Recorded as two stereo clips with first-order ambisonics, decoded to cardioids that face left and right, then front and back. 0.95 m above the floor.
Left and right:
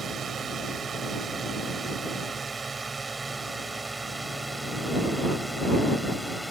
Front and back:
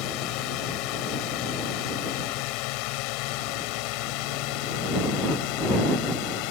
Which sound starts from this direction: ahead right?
A drone, at 0.0 s.